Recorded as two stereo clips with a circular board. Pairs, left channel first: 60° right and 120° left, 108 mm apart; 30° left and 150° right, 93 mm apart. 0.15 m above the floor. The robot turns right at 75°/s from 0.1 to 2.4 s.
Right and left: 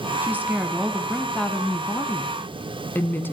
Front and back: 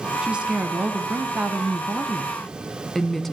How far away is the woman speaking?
About 1.1 m.